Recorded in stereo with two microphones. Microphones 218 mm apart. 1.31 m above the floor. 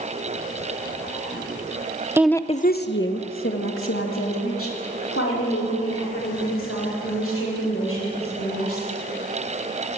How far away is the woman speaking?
About 0.7 m.